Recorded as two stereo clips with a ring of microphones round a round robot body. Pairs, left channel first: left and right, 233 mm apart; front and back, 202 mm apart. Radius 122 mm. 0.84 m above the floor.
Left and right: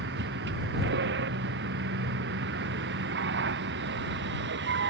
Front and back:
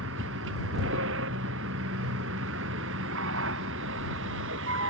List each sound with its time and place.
0.0 s a vehicle: 135° right